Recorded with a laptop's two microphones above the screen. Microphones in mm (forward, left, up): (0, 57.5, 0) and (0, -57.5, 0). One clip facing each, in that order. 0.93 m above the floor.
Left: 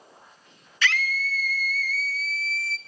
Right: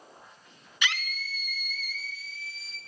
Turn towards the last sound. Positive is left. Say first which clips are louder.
# left 6 dB
turn(degrees=-15)  # may be behind; listen again after turning